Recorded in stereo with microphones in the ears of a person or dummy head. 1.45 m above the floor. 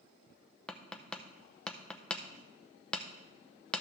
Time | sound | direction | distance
0.7 | tapping | 5° left (ahead or behind) | 0.6 m